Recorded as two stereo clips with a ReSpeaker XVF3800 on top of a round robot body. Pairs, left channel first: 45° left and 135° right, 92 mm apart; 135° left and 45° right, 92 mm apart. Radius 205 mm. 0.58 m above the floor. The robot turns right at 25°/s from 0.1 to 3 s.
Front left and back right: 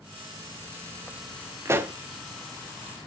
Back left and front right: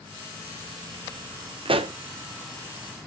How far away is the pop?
About 0.8 m.